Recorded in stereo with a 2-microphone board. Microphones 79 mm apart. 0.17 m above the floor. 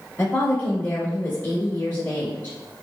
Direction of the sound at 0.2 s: 20° left (ahead or behind).